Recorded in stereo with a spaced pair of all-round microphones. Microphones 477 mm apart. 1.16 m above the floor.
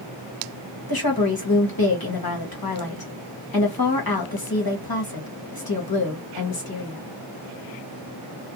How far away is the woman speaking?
About 1.1 m.